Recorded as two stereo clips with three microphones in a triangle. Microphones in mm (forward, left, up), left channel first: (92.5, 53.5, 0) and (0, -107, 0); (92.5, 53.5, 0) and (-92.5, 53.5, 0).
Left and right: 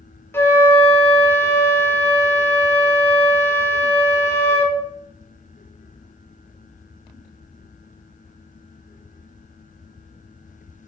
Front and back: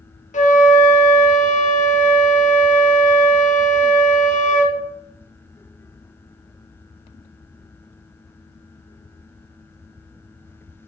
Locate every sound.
0.3 s a flute: 15° right, 0.7 m